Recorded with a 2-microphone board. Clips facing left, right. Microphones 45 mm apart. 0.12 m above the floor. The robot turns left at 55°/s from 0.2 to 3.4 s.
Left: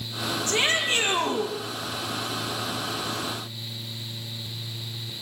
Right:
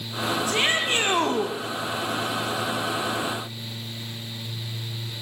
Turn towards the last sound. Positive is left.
turn(degrees=-170)